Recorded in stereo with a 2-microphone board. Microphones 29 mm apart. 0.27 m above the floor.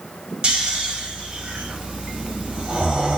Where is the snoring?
35° right (ahead or behind), 1.3 m.